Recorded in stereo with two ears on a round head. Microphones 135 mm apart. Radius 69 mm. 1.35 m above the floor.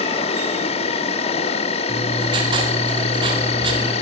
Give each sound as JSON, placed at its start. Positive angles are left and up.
{"t": 0.0, "sound": "an insect", "side_deg": 40, "distance_m": 1.1}
{"t": 1.9, "sound": "writing", "side_deg": -30, "distance_m": 4.5}